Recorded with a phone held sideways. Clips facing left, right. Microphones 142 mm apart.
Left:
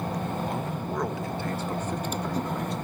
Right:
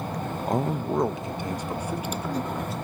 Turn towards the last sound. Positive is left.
turn(degrees=0)  # may be behind; listen again after turning